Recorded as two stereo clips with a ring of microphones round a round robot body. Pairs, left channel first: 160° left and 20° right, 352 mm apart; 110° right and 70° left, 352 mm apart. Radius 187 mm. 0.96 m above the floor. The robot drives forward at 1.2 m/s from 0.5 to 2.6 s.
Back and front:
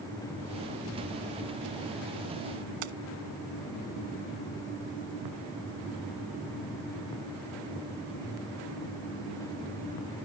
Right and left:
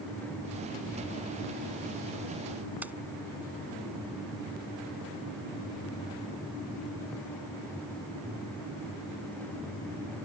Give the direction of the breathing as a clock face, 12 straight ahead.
No breathing in this recording.